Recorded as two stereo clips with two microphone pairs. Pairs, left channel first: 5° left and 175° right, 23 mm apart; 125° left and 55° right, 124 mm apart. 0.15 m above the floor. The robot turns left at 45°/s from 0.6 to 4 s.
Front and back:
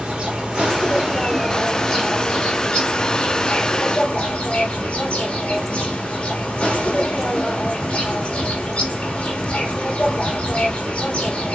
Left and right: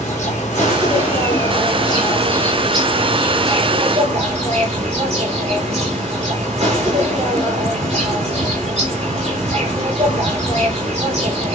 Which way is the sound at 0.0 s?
130° left.